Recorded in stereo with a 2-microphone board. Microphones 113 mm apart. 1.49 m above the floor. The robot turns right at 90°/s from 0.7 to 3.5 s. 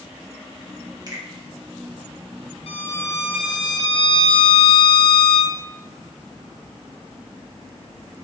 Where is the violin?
60° left, 0.6 m; by 5.6 s 135° left, 0.6 m.